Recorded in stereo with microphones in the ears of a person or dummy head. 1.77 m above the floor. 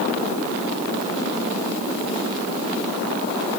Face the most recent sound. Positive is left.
No sound to turn to.